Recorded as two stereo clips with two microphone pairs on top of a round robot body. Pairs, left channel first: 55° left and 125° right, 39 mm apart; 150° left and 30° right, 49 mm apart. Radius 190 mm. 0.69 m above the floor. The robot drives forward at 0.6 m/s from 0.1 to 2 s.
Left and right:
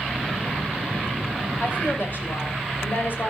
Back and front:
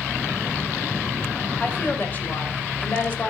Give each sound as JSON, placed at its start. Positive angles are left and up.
{"t": 1.6, "sound": "a woman speaking", "azimuth_deg": 90, "distance_m": 4.0}